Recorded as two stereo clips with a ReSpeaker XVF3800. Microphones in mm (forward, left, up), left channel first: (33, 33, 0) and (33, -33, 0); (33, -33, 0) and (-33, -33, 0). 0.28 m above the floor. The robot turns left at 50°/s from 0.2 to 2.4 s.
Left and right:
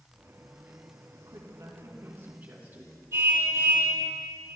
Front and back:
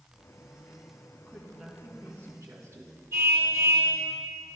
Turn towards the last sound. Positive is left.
turn(degrees=-135)